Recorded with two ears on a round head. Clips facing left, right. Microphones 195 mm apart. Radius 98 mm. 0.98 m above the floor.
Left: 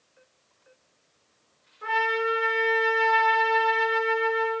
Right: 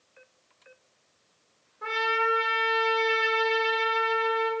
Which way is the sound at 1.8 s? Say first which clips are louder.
Left 2 dB; 45° right (ahead or behind).